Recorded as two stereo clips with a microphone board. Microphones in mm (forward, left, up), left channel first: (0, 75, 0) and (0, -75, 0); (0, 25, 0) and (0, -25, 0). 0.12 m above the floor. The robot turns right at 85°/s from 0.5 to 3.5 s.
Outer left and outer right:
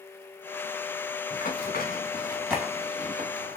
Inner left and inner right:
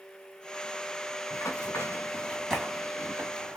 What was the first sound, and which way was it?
Running footsteps, 60° left (ahead or behind).